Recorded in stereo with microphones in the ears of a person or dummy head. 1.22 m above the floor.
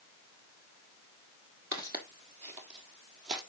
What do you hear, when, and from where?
1.7 s footsteps: 25° right (ahead or behind), 1.3 m; by 3.4 s 60° right (ahead or behind), 2.5 m